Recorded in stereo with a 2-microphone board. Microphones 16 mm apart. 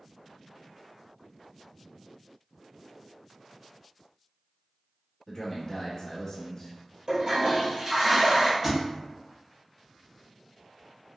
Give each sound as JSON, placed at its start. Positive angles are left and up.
{"t": 5.3, "sound": "a man speaking", "side_deg": 20, "distance_m": 1.0}
{"t": 7.1, "sound": "a toilet flushing", "side_deg": -40, "distance_m": 1.7}
{"t": 8.6, "sound": "a thud", "side_deg": -15, "distance_m": 1.6}